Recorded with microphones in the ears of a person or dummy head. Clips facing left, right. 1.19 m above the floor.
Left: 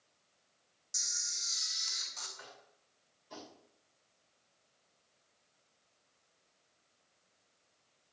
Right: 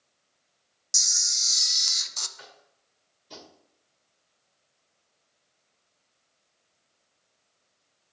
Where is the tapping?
50° right (ahead or behind), 2.5 m.